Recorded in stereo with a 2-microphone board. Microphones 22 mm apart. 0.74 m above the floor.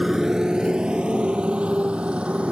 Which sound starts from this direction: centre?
A motorcycle, at 0.0 s.